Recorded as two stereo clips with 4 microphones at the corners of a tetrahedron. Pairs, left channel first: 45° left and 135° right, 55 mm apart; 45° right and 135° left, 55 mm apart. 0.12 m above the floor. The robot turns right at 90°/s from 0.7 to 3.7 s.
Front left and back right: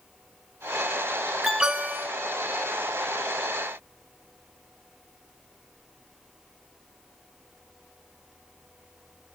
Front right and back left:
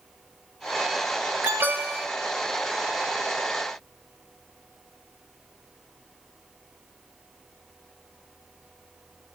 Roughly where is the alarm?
Behind left.